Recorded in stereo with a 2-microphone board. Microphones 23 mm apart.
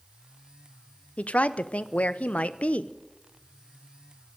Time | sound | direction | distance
1.2 | a woman speaking | 85° left | 0.6 m